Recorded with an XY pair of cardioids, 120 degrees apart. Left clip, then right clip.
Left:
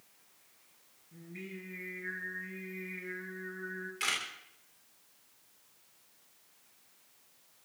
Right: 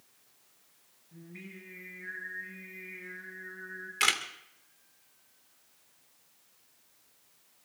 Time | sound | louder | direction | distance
1.1 | singing | left 2 dB | 5° right | 7 m
4.0 | a camera shutter | right 6 dB | 60° right | 2 m